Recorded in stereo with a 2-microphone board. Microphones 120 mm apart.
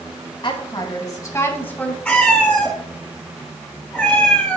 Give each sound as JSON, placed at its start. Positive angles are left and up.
{"t": 0.4, "sound": "a woman speaking", "side_deg": 40, "distance_m": 2.0}
{"t": 2.0, "sound": "a cat meowing", "side_deg": 10, "distance_m": 1.8}